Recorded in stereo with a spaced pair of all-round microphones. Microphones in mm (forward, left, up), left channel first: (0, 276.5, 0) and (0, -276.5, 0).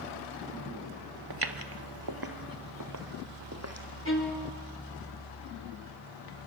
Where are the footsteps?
45° right (ahead or behind), 1.4 m; by 3.9 s 25° right (ahead or behind), 3 m.